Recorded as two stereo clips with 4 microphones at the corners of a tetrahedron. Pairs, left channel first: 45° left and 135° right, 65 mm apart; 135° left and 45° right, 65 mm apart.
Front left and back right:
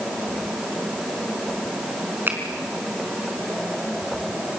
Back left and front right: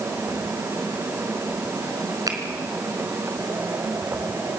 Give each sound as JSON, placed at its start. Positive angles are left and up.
{"t": 2.3, "sound": "a finger snap", "azimuth_deg": -75, "distance_m": 4.0}